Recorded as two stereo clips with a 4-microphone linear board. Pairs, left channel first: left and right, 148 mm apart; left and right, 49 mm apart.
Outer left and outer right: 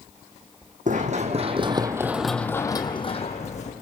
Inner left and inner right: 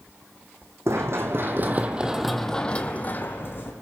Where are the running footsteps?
60° right (ahead or behind), 1.9 m; by 3.7 s 50° left (ahead or behind), 2 m.